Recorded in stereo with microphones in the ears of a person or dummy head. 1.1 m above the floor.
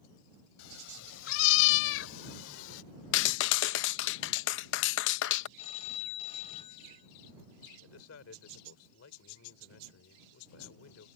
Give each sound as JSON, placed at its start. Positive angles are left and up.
{"t": 0.6, "sound": "a cat meowing", "side_deg": 80}
{"t": 3.1, "sound": "a clap", "side_deg": 65}
{"t": 5.6, "sound": "a phone ringing", "side_deg": 40}
{"t": 7.7, "sound": "a man speaking", "side_deg": 85}